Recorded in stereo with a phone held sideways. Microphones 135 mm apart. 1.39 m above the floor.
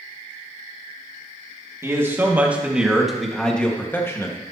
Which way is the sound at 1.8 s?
20° right (ahead or behind).